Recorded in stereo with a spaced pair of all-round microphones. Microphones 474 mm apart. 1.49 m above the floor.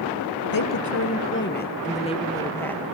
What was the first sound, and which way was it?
A woman speaking, 45° left (ahead or behind).